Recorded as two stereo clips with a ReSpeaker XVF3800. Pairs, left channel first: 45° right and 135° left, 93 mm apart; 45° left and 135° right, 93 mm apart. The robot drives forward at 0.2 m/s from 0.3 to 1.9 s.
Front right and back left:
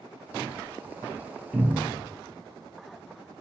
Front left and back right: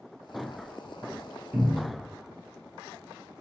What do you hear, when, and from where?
1.5 s a cupboard door: 155° right, 0.9 m; by 2.0 s 160° right, 1.0 m